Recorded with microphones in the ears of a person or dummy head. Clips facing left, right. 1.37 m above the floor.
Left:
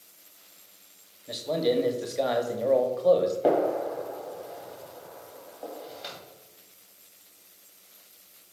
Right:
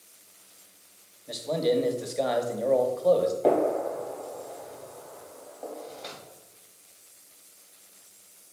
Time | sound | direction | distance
1.3 | a man speaking | 5° left (ahead or behind) | 0.8 m
3.4 | a gunshot | 5° left (ahead or behind) | 2.5 m